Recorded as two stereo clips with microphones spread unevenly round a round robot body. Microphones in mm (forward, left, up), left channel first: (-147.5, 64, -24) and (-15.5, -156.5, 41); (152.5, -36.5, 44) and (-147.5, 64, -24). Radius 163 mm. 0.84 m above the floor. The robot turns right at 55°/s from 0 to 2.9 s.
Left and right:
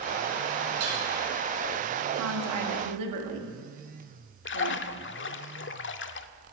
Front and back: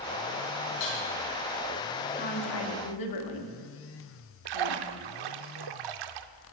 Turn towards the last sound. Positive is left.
turn(degrees=170)